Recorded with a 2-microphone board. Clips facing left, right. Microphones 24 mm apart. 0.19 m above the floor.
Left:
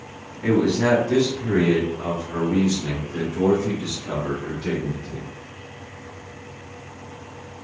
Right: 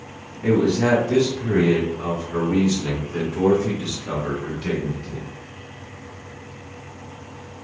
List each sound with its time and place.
0.4 s a man speaking: 30° left (ahead or behind), 1.6 m; by 5.2 s 40° right (ahead or behind), 2 m